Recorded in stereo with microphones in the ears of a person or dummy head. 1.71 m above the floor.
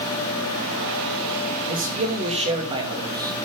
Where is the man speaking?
40° right (ahead or behind), 3 m; by 3.3 s 20° right (ahead or behind), 3 m.